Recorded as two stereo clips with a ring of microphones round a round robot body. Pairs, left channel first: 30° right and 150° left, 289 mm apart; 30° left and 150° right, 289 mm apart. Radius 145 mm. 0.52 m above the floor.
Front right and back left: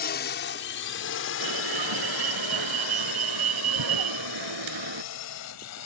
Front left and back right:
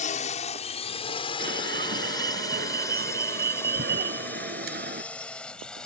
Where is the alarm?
150° left.